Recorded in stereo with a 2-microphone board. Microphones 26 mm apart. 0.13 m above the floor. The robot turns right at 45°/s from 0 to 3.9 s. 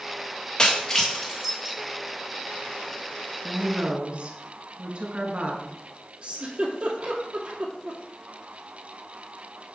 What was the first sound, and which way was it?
Breaking glass, 25° left (ahead or behind).